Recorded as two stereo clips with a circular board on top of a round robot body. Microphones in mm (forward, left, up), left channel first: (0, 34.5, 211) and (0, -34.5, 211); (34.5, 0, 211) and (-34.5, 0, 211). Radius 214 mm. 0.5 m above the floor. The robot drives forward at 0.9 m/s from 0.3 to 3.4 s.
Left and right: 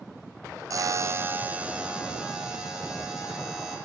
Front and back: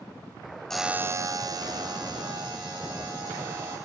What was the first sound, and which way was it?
A buzzer, 80° right.